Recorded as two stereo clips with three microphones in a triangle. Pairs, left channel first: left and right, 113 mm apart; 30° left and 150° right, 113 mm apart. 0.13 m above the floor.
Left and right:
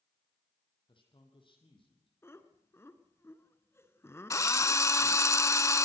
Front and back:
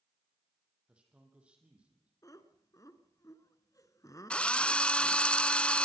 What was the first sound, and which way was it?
A man speaking, 130° left.